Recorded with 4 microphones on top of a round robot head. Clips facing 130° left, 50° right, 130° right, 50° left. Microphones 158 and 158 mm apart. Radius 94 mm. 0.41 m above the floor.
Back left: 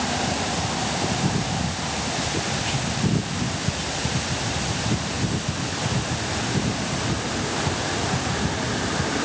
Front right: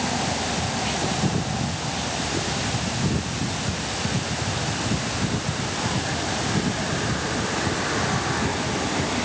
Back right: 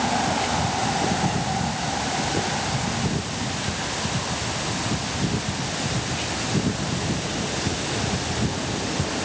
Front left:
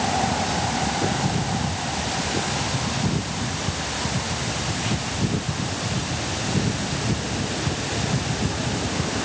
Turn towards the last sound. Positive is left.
No sound to turn to.